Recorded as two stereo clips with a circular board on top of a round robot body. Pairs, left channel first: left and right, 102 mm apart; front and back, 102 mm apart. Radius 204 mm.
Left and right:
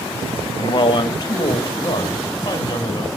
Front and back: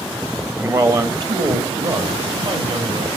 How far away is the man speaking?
About 1.6 m.